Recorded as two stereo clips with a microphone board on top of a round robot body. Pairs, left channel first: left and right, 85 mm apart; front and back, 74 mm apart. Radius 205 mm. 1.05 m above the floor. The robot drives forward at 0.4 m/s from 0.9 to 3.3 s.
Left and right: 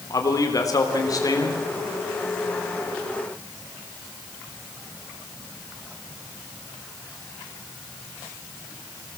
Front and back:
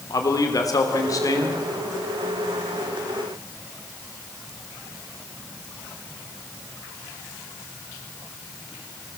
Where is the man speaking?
40° left, 3.5 m; by 1.6 s 45° left, 3 m.